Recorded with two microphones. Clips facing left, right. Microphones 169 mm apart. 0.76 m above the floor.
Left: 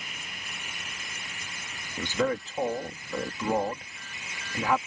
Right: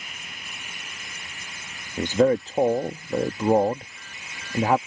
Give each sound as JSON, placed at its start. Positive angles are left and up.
{"t": 2.0, "sound": "a man speaking", "side_deg": -40}